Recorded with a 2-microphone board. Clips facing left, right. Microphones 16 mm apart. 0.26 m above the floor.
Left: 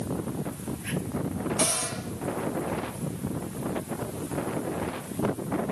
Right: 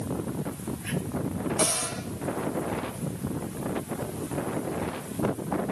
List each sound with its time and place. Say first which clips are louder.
1.6 s a cupboard door: right 1 dB; 10° left (ahead or behind), 8 m